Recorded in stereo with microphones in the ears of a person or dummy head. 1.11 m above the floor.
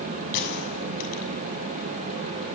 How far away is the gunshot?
About 6.5 m.